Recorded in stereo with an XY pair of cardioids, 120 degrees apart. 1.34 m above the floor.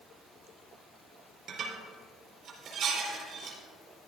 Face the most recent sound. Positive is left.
turn(degrees=-60)